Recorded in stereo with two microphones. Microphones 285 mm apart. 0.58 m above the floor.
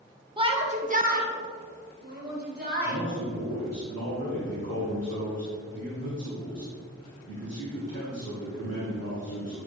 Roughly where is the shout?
Centre.